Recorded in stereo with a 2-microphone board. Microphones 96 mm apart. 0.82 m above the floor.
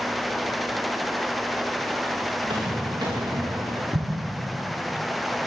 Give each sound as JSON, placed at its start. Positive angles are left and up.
{"t": 2.4, "sound": "footsteps", "side_deg": -55, "distance_m": 5.5}
{"t": 3.9, "sound": "an explosion", "side_deg": -40, "distance_m": 3.0}